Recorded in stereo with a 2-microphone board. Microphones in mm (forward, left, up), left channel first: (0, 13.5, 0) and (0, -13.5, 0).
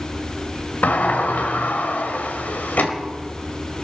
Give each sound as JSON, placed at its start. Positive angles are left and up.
{"t": 0.8, "sound": "a sliding door", "side_deg": 65, "distance_m": 1.7}